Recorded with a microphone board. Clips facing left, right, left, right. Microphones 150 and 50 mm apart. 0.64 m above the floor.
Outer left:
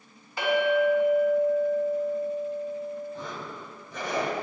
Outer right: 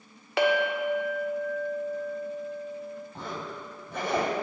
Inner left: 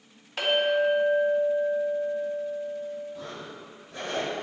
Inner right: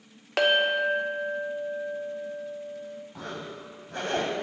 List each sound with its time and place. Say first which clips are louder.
0.4 s a clink: outer left 2 dB, inner right 1 dB; 75° right (ahead or behind), 0.6 m
3.1 s a zipper: even, inner right 1 dB; 55° right (ahead or behind), 0.6 m